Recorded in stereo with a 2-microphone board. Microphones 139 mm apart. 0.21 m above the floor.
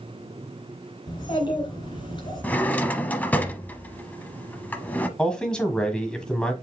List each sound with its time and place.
1.1 s a child speaking: 30° left (ahead or behind), 2.5 m
2.4 s a drawer: 10° left (ahead or behind), 0.6 m
5.2 s a man speaking: 5° left (ahead or behind), 1.3 m